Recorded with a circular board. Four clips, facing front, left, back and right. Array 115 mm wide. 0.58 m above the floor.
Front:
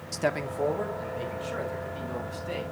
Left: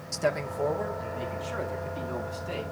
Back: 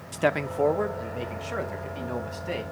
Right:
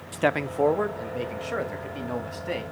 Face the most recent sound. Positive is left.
turn(degrees=-115)